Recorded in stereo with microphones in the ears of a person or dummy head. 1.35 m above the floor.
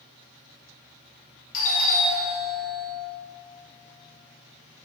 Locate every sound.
1.5 s a doorbell: 45° left (ahead or behind), 2 m